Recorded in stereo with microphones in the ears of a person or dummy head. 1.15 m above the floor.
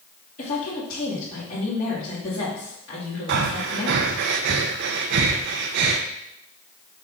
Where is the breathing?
65° right (ahead or behind), 0.8 m.